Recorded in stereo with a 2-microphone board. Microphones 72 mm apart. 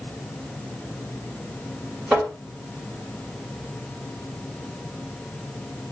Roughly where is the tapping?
Centre.